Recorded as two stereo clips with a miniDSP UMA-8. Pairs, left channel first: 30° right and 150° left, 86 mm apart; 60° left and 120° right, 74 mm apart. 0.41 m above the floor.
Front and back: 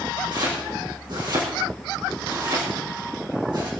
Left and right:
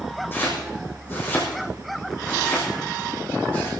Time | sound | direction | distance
0.3 | chopping | 125° left | 6 m